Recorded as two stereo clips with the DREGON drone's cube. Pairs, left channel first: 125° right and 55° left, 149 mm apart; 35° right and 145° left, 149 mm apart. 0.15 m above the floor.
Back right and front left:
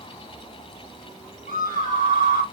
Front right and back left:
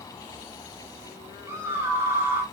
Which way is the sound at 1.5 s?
140° right.